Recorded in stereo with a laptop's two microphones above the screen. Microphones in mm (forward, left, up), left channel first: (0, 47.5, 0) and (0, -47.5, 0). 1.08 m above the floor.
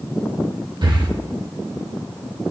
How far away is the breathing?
About 1.2 m.